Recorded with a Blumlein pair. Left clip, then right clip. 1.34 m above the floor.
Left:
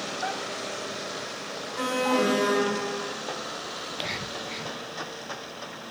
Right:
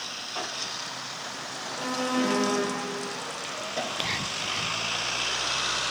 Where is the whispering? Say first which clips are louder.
Right 5 dB; 5° right, 0.5 m.